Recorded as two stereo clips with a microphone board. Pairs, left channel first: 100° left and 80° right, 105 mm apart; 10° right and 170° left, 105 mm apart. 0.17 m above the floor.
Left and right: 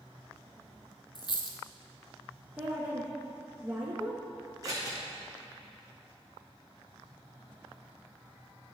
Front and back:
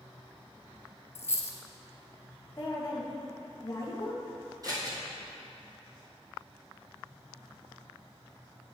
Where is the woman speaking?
15° right, 1.1 m.